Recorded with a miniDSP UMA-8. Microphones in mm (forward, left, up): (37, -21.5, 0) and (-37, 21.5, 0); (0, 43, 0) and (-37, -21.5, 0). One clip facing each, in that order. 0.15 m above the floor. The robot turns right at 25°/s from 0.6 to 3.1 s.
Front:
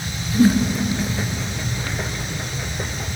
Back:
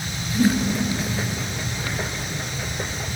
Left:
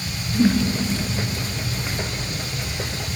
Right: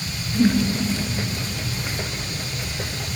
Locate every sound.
0.3 s a whoosh: 10° left, 1.0 m